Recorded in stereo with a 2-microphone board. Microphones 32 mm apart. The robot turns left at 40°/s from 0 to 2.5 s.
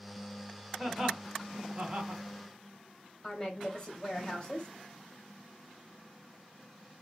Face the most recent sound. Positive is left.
turn(degrees=25)  # may be behind; listen again after turning